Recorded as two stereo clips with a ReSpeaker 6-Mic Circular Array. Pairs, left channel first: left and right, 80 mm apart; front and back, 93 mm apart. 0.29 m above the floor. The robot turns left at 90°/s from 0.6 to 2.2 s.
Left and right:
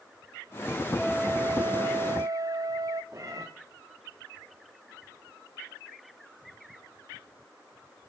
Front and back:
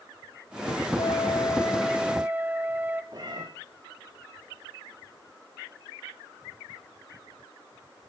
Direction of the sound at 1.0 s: Straight ahead.